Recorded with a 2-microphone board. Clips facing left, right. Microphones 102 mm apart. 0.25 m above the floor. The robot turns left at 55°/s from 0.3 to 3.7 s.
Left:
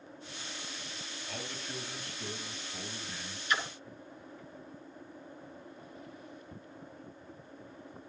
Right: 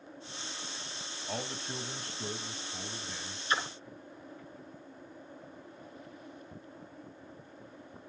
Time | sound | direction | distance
1.3 | a man speaking | 70° right | 1.4 m
3.5 | a splash | 30° right (ahead or behind) | 0.9 m